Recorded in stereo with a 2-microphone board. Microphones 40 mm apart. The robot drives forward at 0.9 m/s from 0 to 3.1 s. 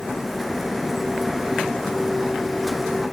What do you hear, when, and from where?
Only background noise.